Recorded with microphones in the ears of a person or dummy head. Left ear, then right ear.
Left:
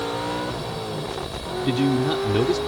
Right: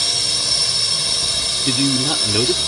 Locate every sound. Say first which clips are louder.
0.0 s a drone: right 7 dB; 65° right (ahead or behind)
1.6 s a man speaking: even; 15° right (ahead or behind)